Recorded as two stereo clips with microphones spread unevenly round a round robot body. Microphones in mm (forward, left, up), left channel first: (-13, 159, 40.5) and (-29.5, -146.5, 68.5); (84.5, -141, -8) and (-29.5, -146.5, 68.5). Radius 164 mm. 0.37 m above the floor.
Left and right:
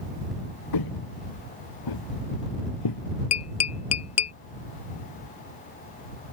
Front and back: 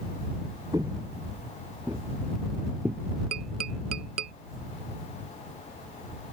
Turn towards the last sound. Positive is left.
turn(degrees=130)